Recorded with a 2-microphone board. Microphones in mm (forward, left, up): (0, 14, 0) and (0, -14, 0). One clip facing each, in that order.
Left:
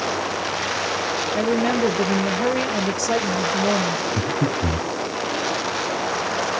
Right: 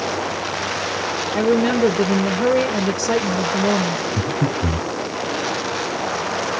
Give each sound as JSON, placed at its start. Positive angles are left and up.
{"t": 1.3, "sound": "a woman speaking", "side_deg": -30, "distance_m": 1.7}
{"t": 4.2, "sound": "breathing", "side_deg": 25, "distance_m": 1.0}